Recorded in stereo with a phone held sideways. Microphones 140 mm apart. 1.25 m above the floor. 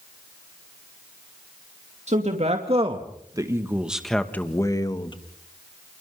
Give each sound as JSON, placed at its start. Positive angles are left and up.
{"t": 2.1, "sound": "a man speaking", "side_deg": -60, "distance_m": 3.0}